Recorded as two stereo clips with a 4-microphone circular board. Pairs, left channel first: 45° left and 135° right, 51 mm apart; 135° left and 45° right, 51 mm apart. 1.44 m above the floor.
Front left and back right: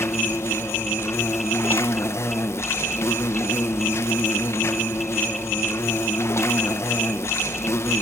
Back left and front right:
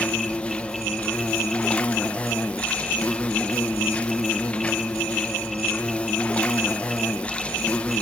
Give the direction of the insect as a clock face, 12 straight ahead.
10 o'clock.